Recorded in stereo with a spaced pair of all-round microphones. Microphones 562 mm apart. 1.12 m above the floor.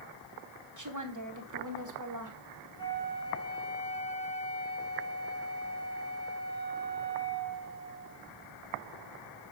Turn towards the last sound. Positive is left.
turn(degrees=75)  # may be behind; listen again after turning